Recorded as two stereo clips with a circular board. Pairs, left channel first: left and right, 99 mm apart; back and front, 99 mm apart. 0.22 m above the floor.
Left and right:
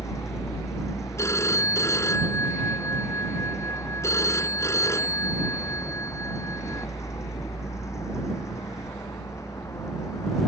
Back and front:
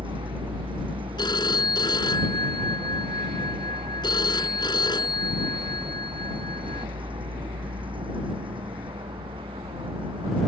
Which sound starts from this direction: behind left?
A phone ringing, at 1.2 s.